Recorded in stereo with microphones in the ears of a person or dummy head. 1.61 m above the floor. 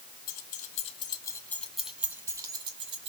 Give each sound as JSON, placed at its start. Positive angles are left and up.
{"t": 0.3, "sound": "keys jangling", "side_deg": 50, "distance_m": 2.0}